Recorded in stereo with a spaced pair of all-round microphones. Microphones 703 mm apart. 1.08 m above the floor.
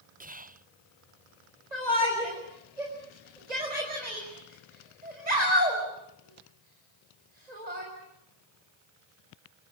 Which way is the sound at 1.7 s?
70° right (ahead or behind).